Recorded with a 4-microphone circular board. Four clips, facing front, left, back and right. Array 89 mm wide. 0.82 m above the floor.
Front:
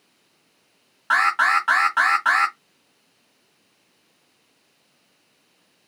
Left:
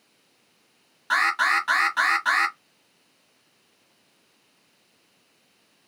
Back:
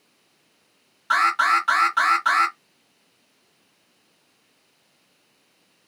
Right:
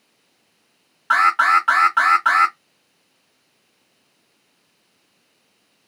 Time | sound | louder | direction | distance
1.1 | an alarm | right 7 dB, even | 50° right | 1.8 m